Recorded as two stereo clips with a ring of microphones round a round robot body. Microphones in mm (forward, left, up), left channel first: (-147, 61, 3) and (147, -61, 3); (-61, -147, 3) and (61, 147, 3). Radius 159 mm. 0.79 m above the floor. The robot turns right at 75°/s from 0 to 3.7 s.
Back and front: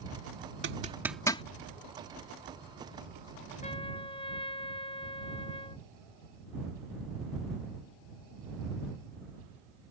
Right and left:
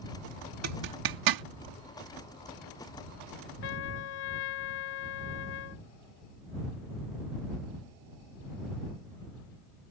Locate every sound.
0.6 s a zipper: 30° left; by 1.4 s 90° left
3.6 s a trumpet: 135° right; by 5.8 s 125° right